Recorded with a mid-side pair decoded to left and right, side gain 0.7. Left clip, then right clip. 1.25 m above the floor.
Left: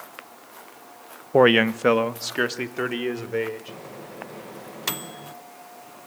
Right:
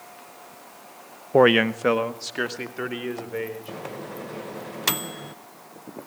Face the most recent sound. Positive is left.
turn(degrees=-20)